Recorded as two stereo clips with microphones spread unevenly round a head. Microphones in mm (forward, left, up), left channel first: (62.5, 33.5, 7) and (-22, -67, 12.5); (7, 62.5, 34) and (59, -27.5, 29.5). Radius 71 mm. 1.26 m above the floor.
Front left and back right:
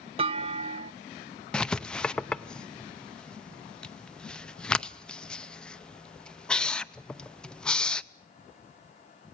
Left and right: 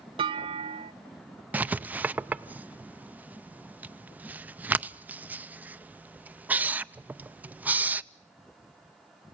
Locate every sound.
0.2 s a clunk: 90° right, 0.6 m
1.5 s writing: 20° right, 0.6 m